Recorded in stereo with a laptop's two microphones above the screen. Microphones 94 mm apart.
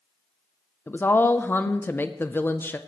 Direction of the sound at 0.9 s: 20° left (ahead or behind).